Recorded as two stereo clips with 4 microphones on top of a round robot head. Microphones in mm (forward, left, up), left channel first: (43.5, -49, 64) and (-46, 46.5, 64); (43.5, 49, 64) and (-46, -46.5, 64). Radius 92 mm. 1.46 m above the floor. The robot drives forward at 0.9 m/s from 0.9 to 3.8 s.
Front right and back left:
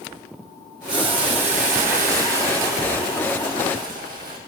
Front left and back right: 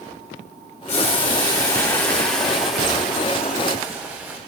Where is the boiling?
80° left, 1.6 m; by 4.4 s 150° left, 3 m.